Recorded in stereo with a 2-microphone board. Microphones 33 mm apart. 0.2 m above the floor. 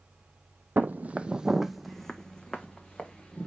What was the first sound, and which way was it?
Footsteps, 65° right (ahead or behind).